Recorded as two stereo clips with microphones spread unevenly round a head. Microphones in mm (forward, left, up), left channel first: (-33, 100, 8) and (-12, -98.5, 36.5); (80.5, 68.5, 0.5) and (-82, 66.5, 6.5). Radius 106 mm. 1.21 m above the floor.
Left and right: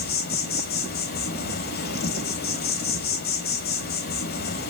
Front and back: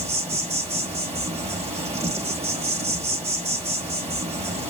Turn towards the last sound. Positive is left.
turn(degrees=130)